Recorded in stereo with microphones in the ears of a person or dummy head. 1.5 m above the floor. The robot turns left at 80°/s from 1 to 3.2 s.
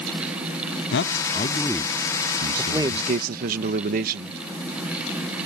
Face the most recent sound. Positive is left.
turn(degrees=-50)